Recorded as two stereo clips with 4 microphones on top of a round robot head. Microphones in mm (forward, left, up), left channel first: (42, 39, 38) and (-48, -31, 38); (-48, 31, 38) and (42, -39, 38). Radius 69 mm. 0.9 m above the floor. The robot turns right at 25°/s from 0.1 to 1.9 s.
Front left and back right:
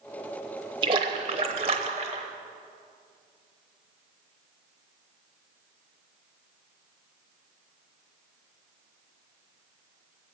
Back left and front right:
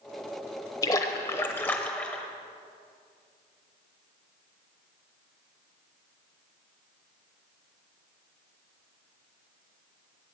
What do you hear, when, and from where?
0.8 s a splash: 170° right, 0.8 m; by 2.2 s 145° right, 0.8 m